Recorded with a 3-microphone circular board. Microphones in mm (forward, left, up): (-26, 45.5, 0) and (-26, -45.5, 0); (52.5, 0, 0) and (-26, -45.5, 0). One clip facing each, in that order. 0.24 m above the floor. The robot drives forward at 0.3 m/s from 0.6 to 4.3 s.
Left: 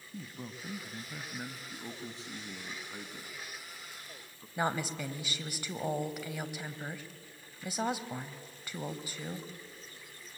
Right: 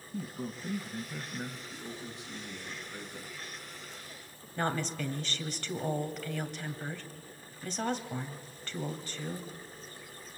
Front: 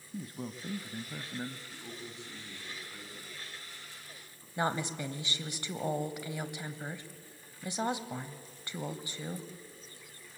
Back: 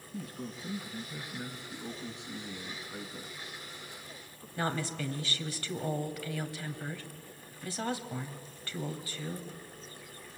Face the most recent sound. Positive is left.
turn(degrees=35)